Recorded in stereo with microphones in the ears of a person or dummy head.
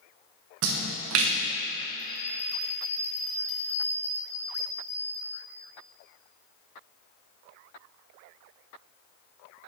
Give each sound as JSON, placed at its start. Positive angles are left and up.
{"t": 0.6, "sound": "a splash", "side_deg": -75, "distance_m": 0.9}
{"t": 2.0, "sound": "a bell", "side_deg": 5, "distance_m": 1.8}